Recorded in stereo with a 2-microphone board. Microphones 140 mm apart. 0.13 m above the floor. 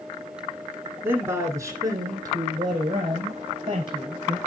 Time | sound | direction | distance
1.0 | a man speaking | 15° right (ahead or behind) | 1.6 m